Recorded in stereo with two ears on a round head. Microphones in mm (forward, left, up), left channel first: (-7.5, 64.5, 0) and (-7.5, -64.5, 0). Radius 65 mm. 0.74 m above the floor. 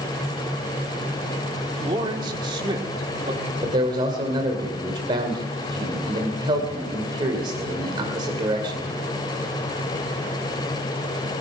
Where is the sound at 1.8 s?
30° right (ahead or behind), 2 m.